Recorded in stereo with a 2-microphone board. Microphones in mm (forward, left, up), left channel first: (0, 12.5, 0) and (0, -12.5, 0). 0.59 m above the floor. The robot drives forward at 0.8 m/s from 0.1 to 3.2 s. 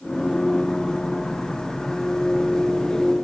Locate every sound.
Only background noise.